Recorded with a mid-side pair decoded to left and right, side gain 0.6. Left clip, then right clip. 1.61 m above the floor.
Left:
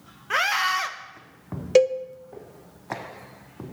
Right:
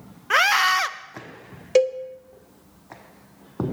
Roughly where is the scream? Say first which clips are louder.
Right 5 dB; ahead right.